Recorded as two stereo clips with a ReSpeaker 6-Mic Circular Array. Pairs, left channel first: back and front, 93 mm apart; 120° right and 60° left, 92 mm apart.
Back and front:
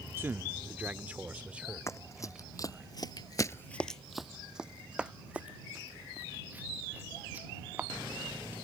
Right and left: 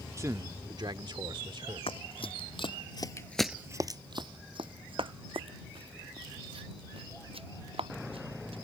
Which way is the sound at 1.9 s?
125° right.